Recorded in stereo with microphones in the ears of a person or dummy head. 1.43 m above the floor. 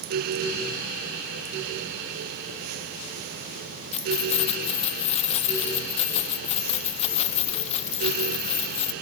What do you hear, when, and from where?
3.9 s keys jangling: 35° left (ahead or behind), 0.6 m